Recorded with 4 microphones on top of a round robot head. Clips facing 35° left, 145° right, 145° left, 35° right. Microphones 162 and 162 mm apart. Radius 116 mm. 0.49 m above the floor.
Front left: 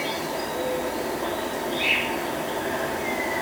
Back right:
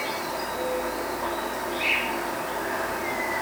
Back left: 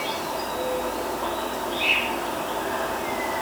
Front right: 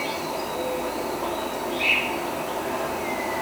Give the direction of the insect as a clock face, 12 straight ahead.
11 o'clock.